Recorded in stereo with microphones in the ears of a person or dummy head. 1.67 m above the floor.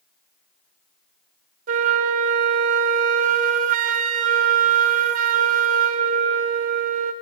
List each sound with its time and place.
1.7 s a flute: 50° right (ahead or behind), 0.8 m